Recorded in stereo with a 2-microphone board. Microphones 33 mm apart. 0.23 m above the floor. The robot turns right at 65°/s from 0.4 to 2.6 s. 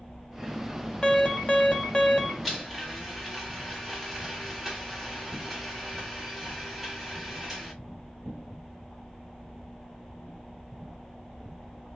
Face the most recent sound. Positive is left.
turn(degrees=-5)  # may be behind; listen again after turning